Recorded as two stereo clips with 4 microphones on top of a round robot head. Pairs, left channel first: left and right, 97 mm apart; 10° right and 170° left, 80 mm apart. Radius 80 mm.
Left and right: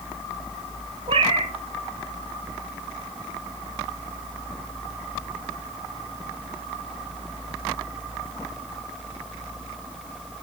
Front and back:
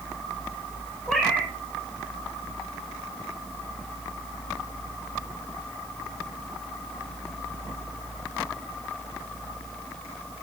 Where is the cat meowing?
100° right, 1.5 m.